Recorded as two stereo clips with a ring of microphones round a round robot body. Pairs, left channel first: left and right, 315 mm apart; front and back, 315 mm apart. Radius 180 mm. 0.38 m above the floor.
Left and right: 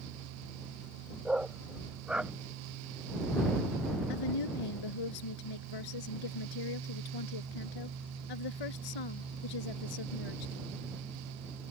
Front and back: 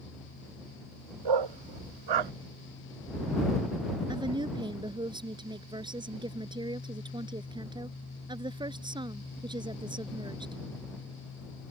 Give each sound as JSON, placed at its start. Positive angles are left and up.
{"t": 1.2, "sound": "a dog barking", "azimuth_deg": 180}
{"t": 4.1, "sound": "a woman speaking", "azimuth_deg": 105}